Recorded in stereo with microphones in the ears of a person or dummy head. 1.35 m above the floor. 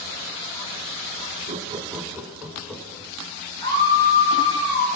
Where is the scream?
25° left (ahead or behind), 7 m.